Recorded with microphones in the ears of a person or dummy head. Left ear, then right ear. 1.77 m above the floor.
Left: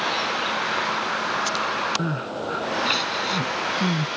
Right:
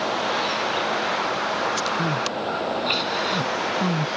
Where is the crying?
15° right (ahead or behind).